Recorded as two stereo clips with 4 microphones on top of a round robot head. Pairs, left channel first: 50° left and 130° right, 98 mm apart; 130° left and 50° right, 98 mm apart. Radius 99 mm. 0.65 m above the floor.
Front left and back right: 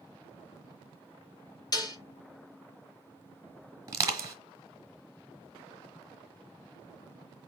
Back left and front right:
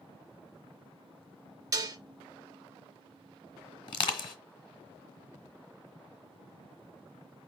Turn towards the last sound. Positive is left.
turn(degrees=170)